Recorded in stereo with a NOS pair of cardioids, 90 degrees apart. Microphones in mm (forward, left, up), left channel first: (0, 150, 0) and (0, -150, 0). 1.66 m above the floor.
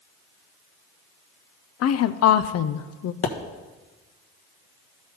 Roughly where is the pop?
Ahead left.